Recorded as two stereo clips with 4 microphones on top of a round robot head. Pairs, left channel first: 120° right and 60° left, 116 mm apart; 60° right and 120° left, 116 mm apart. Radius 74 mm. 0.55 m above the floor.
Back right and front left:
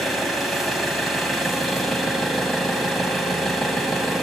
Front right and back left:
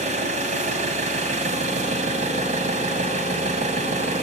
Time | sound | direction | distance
0.0 | an engine running | 145° left | 2.5 m